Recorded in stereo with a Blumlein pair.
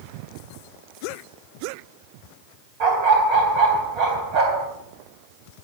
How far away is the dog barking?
About 3.5 m.